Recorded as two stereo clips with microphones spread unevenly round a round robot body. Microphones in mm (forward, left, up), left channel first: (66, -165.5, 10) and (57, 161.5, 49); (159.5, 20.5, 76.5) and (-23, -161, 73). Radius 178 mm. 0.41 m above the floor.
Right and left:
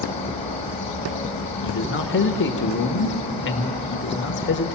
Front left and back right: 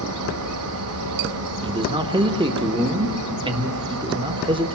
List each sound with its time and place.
0.0 s an insect: 160° right, 2 m
1.6 s a man speaking: 75° right, 1.4 m